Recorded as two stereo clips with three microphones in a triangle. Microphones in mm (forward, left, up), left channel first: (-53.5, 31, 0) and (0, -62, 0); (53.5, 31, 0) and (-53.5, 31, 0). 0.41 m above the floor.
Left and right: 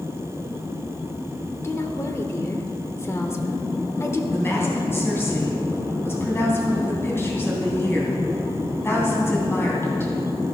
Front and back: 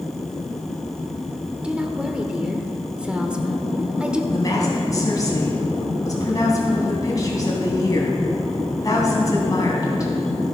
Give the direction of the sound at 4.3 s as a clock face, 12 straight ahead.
10 o'clock.